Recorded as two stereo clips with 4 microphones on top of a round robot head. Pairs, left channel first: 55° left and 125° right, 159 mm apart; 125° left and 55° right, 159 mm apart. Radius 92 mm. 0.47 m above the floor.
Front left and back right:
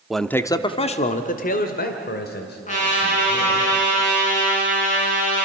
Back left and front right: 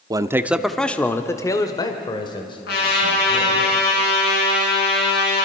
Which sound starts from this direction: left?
A trumpet, at 2.7 s.